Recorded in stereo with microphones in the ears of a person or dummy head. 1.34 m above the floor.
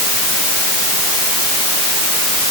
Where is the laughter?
No laughter in this recording.